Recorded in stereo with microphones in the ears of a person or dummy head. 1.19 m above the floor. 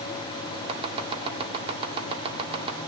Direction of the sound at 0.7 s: 30° right (ahead or behind).